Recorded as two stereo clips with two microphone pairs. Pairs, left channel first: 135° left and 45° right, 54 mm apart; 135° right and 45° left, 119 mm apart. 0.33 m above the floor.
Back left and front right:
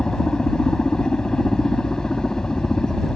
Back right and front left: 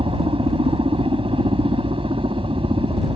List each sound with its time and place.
0.0 s a helicopter: 65° left